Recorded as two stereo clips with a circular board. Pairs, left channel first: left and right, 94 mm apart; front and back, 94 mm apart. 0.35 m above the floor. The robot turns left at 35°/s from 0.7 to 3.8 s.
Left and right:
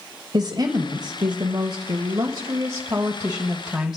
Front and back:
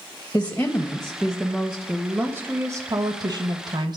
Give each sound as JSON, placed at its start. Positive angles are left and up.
{"t": 0.3, "sound": "a woman speaking", "azimuth_deg": -70, "distance_m": 1.4}